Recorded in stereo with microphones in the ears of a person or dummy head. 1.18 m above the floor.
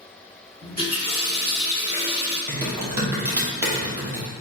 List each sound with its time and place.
0.6 s a running tap: 45° right (ahead or behind), 1.7 m
2.5 s typing on a keyboard: 20° right (ahead or behind), 1.3 m